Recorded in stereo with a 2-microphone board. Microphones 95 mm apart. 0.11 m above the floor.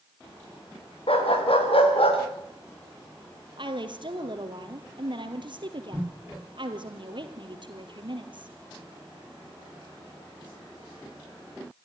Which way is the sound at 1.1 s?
80° left.